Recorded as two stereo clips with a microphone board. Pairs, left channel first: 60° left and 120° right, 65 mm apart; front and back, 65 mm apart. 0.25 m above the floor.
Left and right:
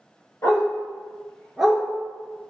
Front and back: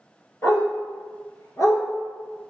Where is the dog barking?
35° left, 1.2 m; by 1.8 s 50° right, 1.0 m.